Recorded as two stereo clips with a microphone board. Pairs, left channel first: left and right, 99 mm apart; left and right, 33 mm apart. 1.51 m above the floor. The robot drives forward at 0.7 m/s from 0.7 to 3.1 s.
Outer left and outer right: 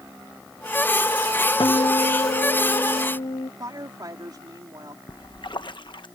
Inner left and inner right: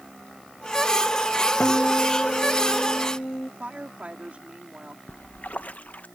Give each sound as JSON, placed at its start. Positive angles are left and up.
{"t": 1.6, "sound": "a guitar", "side_deg": 55}
{"t": 3.6, "sound": "a woman speaking", "side_deg": -45}
{"t": 5.1, "sound": "a splash", "side_deg": 50}